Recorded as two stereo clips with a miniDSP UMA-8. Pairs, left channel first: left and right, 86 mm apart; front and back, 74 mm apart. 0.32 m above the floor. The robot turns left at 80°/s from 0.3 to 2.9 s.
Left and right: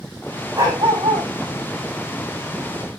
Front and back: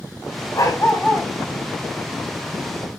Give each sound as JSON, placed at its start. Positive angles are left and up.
{"t": 0.6, "sound": "a dog barking", "azimuth_deg": -40, "distance_m": 5.5}